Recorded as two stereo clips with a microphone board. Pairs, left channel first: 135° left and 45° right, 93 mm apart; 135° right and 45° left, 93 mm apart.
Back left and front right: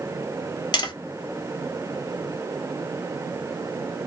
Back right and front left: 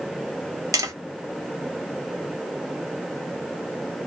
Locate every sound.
0.7 s tapping: 100° left, 0.6 m